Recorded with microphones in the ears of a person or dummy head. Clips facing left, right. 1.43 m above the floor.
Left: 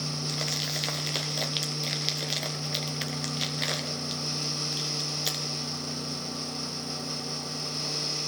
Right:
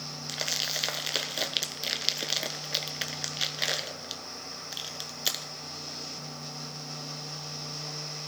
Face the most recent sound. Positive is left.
turn(degrees=0)  # may be behind; listen again after turning